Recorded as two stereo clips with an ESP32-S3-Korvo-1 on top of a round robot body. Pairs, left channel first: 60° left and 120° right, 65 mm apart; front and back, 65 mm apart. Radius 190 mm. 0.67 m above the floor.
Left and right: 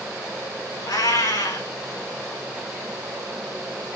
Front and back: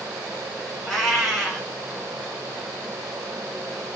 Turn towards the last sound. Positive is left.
turn(degrees=90)